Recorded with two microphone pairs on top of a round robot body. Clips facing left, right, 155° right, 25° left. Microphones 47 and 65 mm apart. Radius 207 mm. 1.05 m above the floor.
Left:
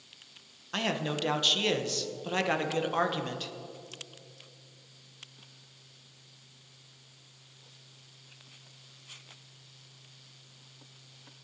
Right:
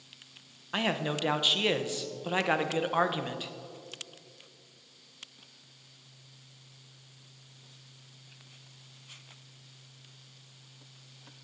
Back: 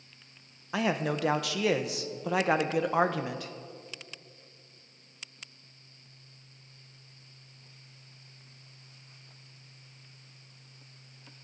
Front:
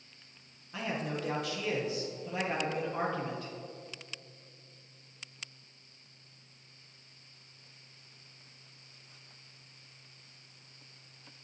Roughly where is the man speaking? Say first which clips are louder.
Right 1 dB, back 7 dB; behind.